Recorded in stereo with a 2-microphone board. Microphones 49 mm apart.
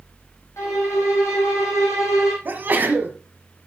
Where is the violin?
75° left (ahead or behind), 4.5 m.